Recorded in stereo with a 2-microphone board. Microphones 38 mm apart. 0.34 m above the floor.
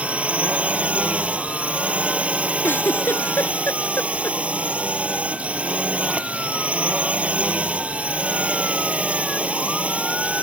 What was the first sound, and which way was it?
A drone, 35° right (ahead or behind).